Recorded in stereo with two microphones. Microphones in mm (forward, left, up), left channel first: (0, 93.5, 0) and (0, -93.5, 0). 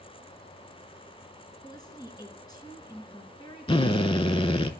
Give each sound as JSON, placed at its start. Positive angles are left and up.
{"t": 1.6, "sound": "a woman speaking", "side_deg": 20, "distance_m": 1.4}
{"t": 3.7, "sound": "a drill", "side_deg": 30, "distance_m": 0.5}